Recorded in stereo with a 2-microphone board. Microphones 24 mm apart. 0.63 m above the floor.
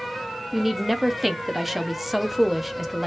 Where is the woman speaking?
10° right (ahead or behind), 0.5 m.